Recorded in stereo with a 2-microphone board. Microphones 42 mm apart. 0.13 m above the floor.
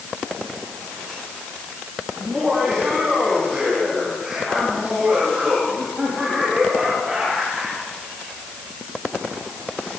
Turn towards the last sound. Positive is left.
turn(degrees=-15)  # may be behind; listen again after turning